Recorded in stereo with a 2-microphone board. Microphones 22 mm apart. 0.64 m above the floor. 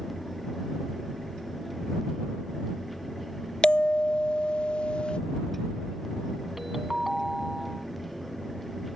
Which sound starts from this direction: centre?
A ringtone, at 6.6 s.